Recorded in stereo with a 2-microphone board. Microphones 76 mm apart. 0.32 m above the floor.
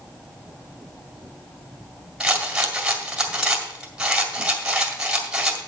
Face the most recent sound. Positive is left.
turn(degrees=-10)  # may be behind; listen again after turning